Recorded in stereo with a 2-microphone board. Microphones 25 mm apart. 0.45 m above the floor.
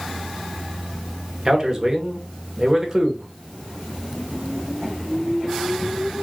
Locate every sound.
1.4 s a man speaking: 20° right (ahead or behind), 1.2 m